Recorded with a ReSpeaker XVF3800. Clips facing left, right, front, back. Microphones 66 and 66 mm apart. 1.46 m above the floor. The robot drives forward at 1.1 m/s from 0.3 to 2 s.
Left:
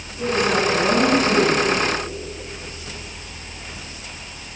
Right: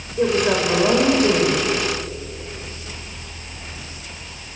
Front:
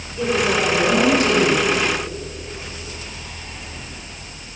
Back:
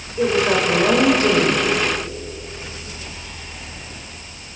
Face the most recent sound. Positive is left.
turn(degrees=-125)